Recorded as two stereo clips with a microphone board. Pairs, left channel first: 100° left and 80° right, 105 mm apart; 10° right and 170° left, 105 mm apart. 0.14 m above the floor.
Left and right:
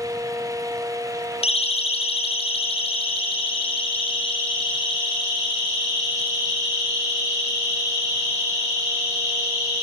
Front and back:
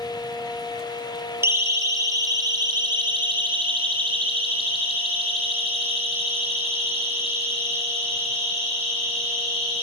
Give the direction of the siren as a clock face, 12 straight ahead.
9 o'clock.